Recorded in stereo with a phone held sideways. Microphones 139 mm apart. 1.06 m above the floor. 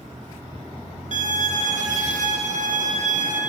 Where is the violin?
60° right (ahead or behind), 0.8 m.